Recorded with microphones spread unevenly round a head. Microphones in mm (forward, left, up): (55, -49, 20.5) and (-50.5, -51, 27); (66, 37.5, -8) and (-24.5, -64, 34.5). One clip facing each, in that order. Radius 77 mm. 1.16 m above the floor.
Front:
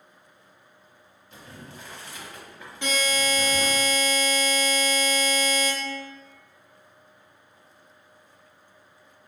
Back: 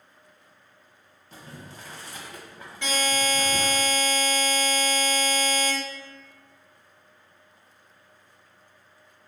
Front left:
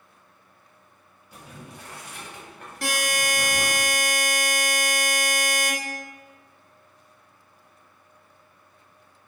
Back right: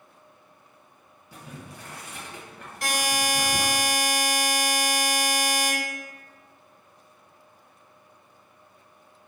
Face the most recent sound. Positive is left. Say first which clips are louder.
# even, even
turn(degrees=80)